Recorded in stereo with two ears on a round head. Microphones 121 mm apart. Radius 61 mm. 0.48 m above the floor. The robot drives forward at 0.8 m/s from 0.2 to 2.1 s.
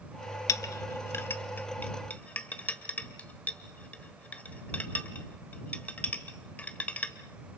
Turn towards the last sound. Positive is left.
turn(degrees=10)  # may be behind; listen again after turning